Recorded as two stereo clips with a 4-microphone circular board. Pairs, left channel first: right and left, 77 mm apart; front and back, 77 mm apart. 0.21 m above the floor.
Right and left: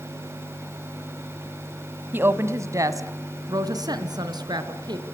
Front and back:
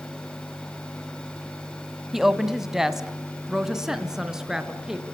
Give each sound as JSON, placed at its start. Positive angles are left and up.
{"t": 2.1, "sound": "a woman speaking", "azimuth_deg": 100, "distance_m": 1.3}